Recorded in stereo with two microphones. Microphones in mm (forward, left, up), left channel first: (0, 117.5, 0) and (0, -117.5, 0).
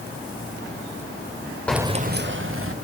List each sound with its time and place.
1.7 s keys jangling: 5° left (ahead or behind), 0.6 m; by 2.7 s 65° right (ahead or behind), 1.5 m